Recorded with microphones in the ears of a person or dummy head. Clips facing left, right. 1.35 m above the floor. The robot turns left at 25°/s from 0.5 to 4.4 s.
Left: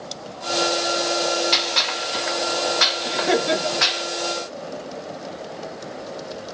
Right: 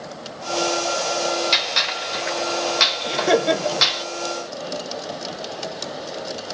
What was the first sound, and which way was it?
A gunshot, 5° right (ahead or behind).